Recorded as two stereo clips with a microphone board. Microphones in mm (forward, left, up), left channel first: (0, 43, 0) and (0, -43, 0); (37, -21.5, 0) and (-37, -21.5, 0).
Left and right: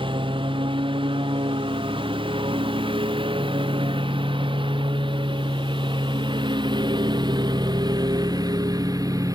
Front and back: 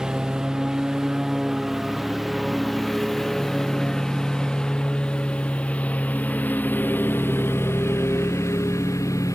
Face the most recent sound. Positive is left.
turn(degrees=-45)